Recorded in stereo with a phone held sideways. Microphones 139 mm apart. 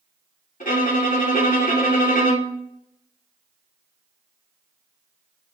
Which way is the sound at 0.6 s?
85° left.